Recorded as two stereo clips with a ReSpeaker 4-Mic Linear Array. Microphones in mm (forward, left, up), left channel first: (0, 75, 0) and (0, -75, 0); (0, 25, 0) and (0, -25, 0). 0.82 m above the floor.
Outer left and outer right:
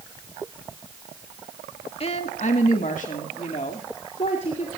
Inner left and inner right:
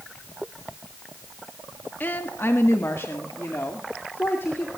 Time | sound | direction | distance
2.0 | a woman speaking | 40° left (ahead or behind) | 1.4 m